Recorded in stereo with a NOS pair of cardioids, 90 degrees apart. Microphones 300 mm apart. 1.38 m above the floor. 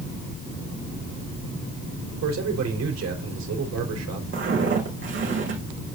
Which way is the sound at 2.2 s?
60° right.